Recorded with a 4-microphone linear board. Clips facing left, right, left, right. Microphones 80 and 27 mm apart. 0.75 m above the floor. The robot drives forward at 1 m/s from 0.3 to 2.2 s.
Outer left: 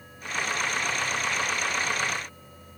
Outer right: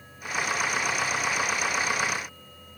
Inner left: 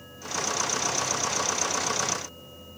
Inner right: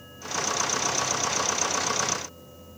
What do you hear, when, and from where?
Only background noise.